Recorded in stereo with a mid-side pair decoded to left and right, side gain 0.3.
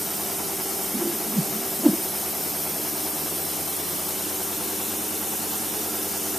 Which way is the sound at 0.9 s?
5° right.